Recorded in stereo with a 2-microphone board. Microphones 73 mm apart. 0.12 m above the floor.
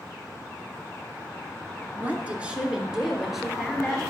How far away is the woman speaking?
About 1.4 m.